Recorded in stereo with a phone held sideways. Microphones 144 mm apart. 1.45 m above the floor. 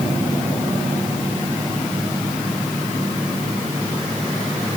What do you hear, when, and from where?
Only background noise.